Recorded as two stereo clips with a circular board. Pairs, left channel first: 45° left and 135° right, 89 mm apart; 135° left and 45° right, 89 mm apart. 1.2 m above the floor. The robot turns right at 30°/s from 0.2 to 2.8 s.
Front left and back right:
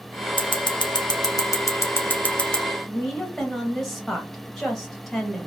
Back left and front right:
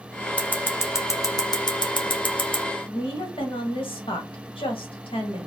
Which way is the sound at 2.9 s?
135° left.